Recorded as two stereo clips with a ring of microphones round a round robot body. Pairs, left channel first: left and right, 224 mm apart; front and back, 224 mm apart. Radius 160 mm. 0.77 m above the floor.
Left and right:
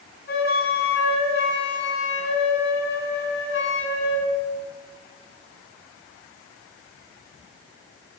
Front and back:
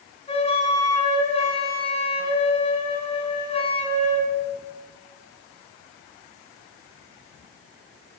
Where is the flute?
60° left, 10 m.